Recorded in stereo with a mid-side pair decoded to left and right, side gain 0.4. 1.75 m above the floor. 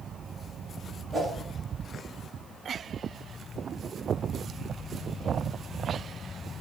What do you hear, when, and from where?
1.1 s a whoosh: 30° right, 1.3 m